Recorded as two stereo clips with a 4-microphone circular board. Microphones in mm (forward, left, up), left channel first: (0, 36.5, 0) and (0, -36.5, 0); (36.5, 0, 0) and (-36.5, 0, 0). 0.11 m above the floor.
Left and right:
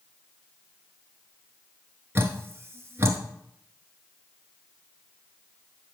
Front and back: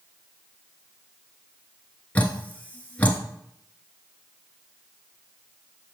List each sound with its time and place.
2.1 s dripping: 55° right, 0.8 m